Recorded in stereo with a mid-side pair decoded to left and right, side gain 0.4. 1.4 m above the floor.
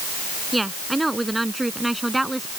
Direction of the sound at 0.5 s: 15° right.